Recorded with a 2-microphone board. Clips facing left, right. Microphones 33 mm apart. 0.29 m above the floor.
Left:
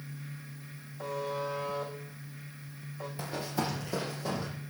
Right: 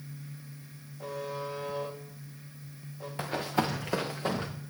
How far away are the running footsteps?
About 2 m.